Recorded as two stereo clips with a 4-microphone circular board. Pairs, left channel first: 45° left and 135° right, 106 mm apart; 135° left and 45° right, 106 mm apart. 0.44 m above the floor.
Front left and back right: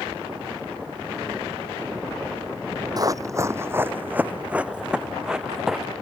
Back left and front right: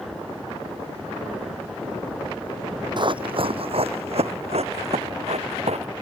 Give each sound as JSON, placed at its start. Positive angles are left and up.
{"t": 3.0, "sound": "running footsteps", "azimuth_deg": -85}